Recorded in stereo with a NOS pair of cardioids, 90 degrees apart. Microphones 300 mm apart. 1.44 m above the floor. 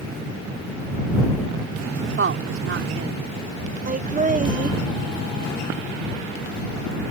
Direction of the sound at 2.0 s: 45° right.